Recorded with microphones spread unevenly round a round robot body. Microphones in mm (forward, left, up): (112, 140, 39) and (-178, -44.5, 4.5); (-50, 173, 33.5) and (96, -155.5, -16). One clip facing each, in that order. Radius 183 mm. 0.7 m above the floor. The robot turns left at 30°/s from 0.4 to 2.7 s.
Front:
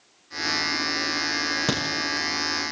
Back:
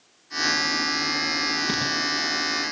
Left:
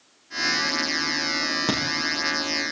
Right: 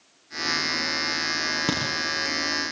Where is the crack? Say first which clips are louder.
Front 5 dB, even; 20° left, 7.5 m; by 1.9 s 15° left, 7.5 m.